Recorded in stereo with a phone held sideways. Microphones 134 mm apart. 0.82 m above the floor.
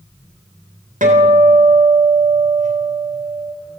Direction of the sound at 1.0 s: 75° right (ahead or behind).